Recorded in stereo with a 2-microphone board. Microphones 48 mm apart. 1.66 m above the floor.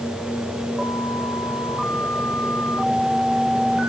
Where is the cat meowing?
I don't hear a cat meowing.